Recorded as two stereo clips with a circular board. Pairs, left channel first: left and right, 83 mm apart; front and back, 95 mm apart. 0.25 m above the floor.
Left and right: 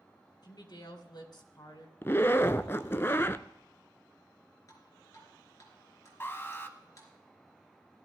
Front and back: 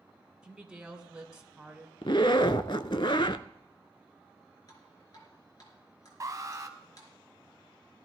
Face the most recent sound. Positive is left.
turn(degrees=140)